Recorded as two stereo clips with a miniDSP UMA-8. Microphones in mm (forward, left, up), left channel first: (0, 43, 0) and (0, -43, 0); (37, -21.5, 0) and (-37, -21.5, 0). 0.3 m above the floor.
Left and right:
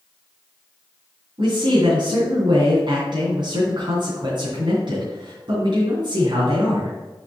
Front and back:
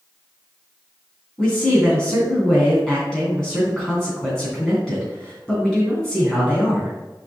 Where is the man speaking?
80° right, 3 m.